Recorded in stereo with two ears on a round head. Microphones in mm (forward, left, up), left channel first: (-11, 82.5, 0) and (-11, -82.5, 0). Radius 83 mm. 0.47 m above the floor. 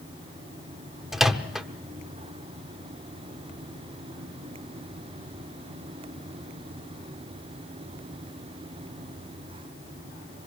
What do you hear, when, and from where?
1.1 s a microwave: centre (ahead or behind), 0.8 m